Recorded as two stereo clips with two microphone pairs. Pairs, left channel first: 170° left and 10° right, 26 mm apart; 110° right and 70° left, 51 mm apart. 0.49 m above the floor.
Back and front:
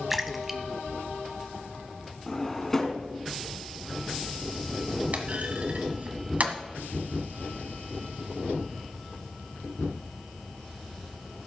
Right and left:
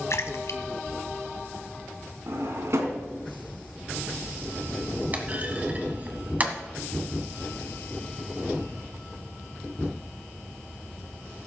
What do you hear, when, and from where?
0.1 s a splash: 95° right, 0.9 m
2.3 s a drawer: 95° left, 1.8 m
5.1 s a clunk: 15° left, 1.3 m